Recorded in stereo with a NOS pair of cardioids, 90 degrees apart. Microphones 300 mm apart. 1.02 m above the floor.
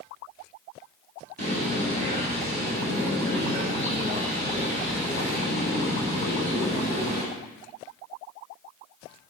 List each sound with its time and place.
1.4 s a bird: 30° right, 1.6 m